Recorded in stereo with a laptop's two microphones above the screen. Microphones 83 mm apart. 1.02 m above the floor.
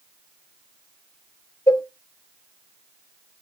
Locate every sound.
1.7 s a cowbell: 50° left (ahead or behind), 0.9 m